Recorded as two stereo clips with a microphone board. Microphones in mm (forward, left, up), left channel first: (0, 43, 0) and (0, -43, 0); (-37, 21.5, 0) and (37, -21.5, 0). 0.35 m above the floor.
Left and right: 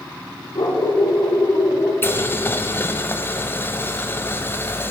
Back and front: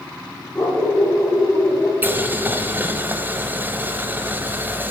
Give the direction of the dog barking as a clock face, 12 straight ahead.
9 o'clock.